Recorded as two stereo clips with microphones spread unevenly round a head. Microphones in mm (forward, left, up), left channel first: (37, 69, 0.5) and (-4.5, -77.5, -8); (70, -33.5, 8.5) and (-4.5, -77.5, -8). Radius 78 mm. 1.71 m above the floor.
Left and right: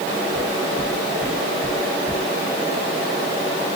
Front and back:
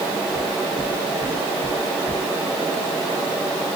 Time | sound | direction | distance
0.3 | knocking | 20° right | 5.5 m